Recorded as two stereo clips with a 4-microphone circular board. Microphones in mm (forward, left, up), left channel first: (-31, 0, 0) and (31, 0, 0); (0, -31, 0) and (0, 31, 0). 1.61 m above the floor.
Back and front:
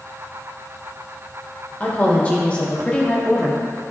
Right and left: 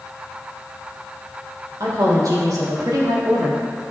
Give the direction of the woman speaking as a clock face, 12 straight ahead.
8 o'clock.